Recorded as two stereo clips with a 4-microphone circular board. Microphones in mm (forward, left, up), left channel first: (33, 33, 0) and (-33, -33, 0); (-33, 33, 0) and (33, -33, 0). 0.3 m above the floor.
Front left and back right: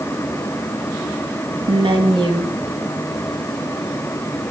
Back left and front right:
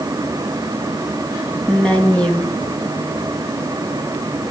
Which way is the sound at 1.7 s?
145° right.